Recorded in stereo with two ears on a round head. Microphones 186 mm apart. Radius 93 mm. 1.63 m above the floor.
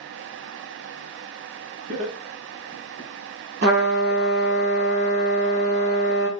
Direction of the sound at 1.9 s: 70° right (ahead or behind).